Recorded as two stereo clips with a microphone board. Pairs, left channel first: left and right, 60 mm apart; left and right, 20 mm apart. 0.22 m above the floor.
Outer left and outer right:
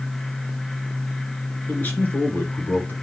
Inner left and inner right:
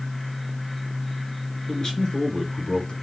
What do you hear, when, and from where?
1.7 s a man speaking: 30° left (ahead or behind), 3 m